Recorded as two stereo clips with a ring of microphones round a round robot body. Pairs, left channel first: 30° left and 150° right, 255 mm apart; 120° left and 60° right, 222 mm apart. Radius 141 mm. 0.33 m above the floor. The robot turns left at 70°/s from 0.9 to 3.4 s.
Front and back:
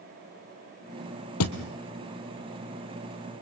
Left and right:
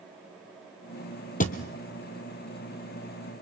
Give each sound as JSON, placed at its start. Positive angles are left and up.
{"t": 1.4, "sound": "a thud", "azimuth_deg": 65, "distance_m": 1.6}